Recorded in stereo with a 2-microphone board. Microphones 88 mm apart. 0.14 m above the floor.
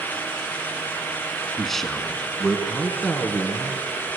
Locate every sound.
1.6 s a man speaking: centre (ahead or behind), 1.6 m; by 3.8 s 15° left (ahead or behind), 1.9 m